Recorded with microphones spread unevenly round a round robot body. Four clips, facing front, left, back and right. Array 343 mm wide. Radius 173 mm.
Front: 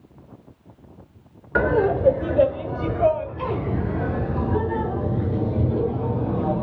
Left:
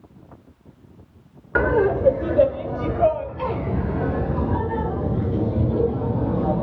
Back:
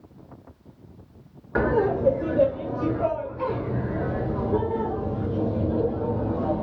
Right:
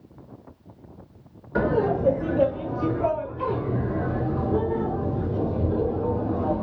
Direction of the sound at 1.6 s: 70° left.